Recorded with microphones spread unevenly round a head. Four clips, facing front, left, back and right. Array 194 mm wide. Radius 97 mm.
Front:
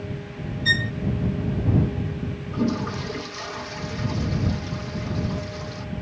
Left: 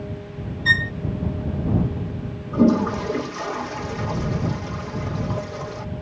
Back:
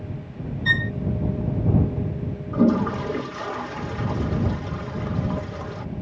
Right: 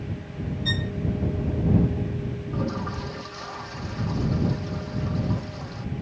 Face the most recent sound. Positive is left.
turn(degrees=120)